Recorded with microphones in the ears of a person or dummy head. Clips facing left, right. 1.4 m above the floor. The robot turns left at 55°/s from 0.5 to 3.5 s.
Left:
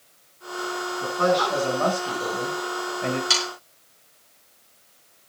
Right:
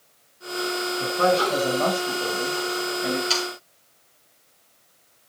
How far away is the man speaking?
About 6.5 m.